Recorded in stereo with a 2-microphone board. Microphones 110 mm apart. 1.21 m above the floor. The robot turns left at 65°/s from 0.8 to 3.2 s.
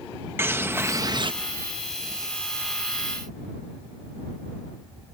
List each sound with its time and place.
0.4 s a bird: 20° right; by 1.3 s 55° right